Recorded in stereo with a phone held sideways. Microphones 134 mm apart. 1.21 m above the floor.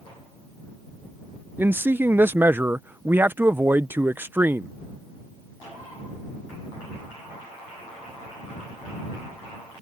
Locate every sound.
1.6 s a man speaking: 15° right (ahead or behind)